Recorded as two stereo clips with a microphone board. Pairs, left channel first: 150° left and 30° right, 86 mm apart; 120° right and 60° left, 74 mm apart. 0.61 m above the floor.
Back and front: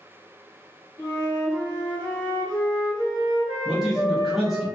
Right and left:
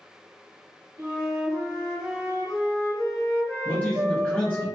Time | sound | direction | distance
1.0 | a flute | 105° left | 0.9 m
3.6 | a man speaking | 110° right | 0.6 m